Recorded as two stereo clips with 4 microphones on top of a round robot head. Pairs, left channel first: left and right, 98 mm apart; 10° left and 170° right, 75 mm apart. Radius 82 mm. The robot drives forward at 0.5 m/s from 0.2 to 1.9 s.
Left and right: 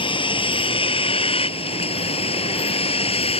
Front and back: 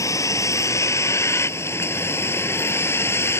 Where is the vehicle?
55° left; by 3.4 s 65° left.